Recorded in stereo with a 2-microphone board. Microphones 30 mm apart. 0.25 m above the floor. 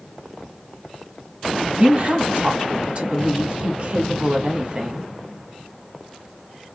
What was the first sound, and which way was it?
A woman speaking, 40° right (ahead or behind).